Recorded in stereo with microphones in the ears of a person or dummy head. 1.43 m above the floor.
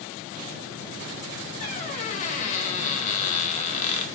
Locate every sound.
1.6 s a squeak: 45° left (ahead or behind), 0.7 m